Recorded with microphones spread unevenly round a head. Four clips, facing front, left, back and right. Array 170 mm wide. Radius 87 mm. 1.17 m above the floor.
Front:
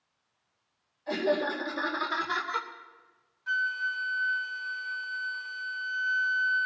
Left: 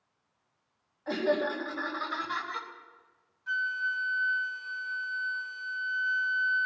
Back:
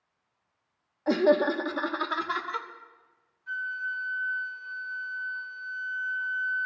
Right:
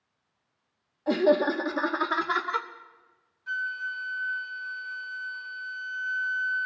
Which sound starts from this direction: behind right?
Laughter, at 1.1 s.